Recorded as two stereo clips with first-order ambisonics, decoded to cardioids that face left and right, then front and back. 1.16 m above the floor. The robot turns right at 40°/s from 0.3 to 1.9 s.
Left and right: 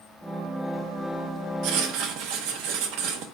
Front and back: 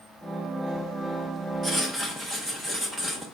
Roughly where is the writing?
Right.